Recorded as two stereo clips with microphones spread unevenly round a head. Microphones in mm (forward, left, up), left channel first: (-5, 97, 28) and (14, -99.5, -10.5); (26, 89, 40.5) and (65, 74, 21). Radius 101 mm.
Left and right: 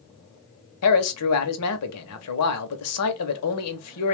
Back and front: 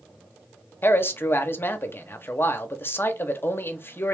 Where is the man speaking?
110° left, 0.9 m.